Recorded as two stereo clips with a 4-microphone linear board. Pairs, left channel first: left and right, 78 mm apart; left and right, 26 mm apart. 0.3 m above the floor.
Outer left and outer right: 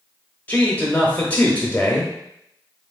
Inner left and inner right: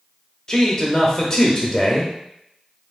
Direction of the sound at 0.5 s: 20° left (ahead or behind).